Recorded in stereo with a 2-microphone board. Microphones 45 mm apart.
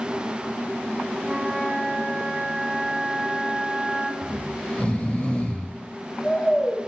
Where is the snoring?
25° left (ahead or behind), 1.1 m.